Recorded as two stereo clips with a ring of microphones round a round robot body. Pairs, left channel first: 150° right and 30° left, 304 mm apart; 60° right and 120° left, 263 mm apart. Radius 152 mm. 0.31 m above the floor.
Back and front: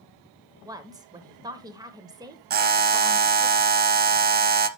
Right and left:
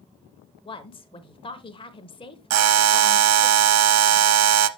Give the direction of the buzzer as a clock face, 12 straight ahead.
9 o'clock.